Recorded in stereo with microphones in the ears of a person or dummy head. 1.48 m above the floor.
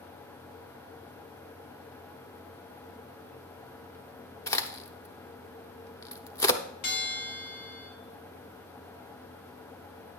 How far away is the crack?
About 0.7 m.